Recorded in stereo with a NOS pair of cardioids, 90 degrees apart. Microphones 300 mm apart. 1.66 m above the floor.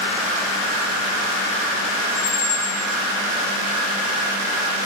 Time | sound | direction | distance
2.1 | a squeak | 50° left | 5 m